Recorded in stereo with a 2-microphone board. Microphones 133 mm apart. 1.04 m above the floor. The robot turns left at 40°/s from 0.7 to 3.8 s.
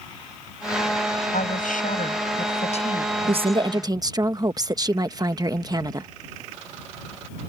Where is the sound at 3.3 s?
50° right (ahead or behind); by 6.1 s 30° right (ahead or behind).